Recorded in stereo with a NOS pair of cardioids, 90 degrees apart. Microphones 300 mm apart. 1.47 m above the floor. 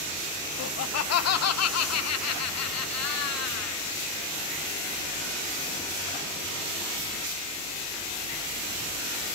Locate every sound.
0.6 s laughter: 55° left, 0.8 m; by 3.9 s 60° left, 2.5 m